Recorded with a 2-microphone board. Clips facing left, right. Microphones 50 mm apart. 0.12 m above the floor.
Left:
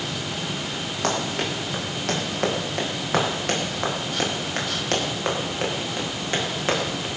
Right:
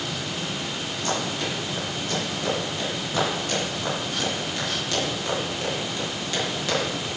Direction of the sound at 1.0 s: 80° left.